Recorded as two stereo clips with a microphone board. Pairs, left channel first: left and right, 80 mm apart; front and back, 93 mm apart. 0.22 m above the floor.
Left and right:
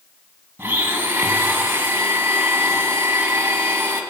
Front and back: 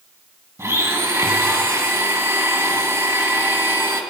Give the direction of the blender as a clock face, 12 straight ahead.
5 o'clock.